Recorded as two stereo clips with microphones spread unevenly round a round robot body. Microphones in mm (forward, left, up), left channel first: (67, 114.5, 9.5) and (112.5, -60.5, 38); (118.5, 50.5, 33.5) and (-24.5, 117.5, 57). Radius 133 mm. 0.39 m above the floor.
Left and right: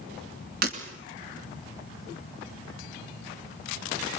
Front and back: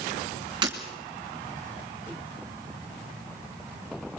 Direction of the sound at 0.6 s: 135° right.